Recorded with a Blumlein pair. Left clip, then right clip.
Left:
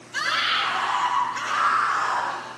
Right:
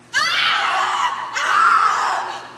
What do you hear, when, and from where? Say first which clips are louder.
0.1 s a scream: right 6 dB; 65° right, 8.5 m